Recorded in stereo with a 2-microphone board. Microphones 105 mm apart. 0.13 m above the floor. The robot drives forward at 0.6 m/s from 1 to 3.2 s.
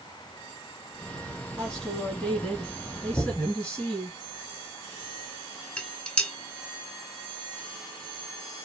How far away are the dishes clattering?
About 0.8 m.